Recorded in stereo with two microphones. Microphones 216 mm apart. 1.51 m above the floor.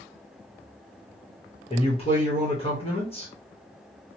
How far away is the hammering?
I don't hear hammering.